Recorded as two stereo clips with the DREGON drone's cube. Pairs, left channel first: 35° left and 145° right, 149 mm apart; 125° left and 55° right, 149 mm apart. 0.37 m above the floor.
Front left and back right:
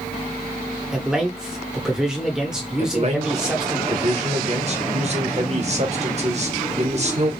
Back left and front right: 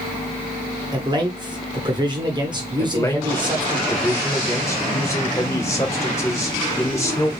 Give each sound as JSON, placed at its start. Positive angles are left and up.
{"t": 0.9, "sound": "a man speaking", "azimuth_deg": -65, "distance_m": 1.1}
{"t": 2.8, "sound": "a man speaking", "azimuth_deg": -170, "distance_m": 1.1}